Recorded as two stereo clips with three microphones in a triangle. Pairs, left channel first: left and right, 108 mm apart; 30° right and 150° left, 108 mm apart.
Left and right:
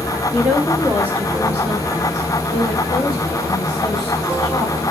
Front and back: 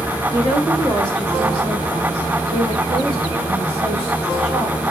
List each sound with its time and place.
0.3 s a woman speaking: 175° left, 1.1 m; by 4.8 s 150° left, 3.5 m